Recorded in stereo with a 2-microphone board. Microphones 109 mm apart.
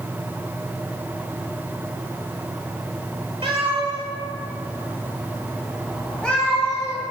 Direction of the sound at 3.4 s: 60° right (ahead or behind).